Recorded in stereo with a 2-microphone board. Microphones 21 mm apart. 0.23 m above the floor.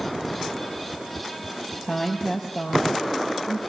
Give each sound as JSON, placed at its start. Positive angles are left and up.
{"t": 1.8, "sound": "a woman speaking", "side_deg": -25, "distance_m": 6.0}